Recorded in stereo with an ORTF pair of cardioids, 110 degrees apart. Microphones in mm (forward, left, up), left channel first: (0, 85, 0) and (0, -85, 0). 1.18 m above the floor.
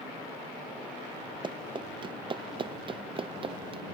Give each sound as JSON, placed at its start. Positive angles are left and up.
{"t": 1.4, "sound": "running footsteps", "azimuth_deg": -30}